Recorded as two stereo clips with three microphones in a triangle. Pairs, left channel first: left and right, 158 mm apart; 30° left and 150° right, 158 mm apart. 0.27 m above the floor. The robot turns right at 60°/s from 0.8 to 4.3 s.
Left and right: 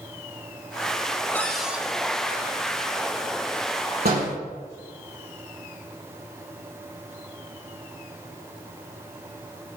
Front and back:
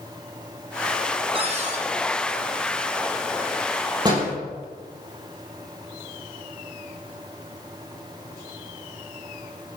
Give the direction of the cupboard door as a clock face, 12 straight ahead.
6 o'clock.